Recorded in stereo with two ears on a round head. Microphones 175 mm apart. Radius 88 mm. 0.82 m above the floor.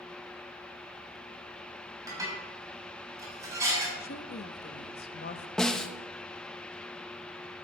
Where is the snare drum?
5° left (ahead or behind), 0.8 m.